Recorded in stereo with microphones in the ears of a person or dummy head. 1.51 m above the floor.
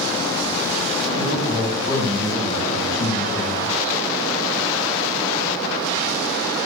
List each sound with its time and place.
1.2 s a man speaking: 55° left (ahead or behind), 5 m